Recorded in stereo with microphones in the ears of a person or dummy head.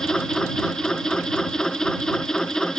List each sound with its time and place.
0.0 s a machine running: centre (ahead or behind)